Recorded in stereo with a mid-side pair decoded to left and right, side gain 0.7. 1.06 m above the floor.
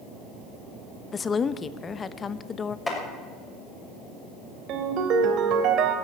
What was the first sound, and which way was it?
A woman speaking, 25° left.